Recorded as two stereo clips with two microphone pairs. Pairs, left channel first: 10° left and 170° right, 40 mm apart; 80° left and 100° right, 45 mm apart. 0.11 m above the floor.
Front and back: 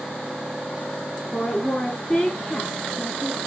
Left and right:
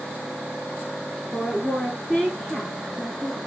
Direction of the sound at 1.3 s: 35° left.